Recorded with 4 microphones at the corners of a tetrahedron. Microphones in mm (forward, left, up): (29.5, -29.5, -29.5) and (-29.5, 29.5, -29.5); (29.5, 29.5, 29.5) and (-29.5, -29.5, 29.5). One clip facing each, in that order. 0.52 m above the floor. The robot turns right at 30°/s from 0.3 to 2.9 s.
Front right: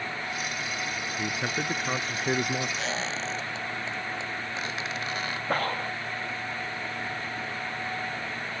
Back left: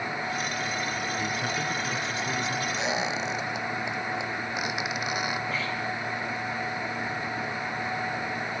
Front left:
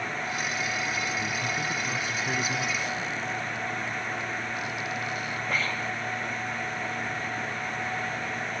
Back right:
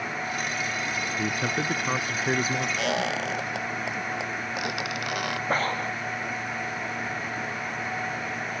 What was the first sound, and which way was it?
A man speaking, 120° right.